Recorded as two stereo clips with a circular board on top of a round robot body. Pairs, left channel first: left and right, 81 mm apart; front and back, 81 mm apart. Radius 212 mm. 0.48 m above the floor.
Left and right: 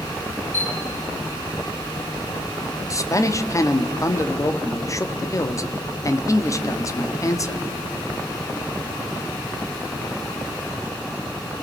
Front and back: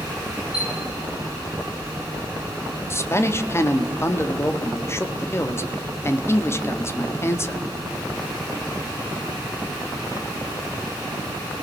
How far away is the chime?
About 7 m.